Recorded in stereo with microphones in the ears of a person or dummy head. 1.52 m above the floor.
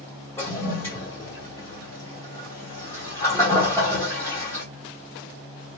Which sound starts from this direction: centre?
A toilet flushing, at 0.4 s.